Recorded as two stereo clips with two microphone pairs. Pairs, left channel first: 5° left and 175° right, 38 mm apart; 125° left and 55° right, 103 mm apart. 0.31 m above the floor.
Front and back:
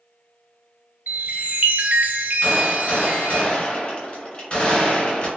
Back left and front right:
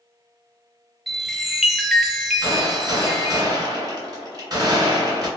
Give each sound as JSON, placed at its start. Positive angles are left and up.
{"t": 1.1, "sound": "a chime", "azimuth_deg": -150, "distance_m": 0.5}
{"t": 2.4, "sound": "a gunshot", "azimuth_deg": -40, "distance_m": 1.8}